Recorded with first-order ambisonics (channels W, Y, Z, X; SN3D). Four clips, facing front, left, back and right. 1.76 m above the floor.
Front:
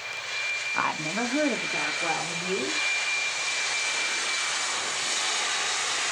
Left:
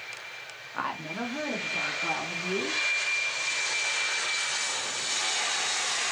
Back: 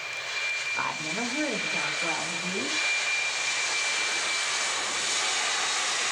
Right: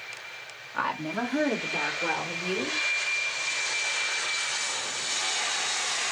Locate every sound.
0.7 s a woman speaking: straight ahead, 0.8 m; by 2.8 s 50° right, 2 m